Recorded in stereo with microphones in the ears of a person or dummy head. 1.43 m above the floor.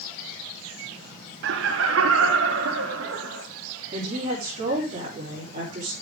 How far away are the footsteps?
I don't hear footsteps.